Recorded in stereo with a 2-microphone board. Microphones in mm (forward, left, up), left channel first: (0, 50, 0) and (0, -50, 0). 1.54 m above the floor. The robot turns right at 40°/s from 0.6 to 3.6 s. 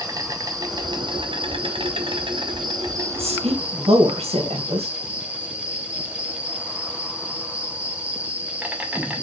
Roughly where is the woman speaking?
Right.